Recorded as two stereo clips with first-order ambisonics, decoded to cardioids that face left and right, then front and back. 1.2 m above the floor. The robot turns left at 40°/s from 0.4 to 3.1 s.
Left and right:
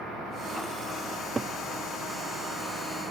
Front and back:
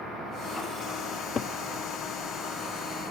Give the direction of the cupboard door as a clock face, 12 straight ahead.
1 o'clock.